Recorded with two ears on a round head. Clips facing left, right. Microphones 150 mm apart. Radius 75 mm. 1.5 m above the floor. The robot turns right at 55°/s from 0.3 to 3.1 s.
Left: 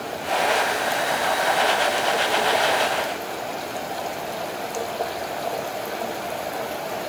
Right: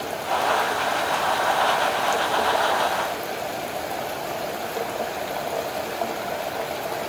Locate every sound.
Only background noise.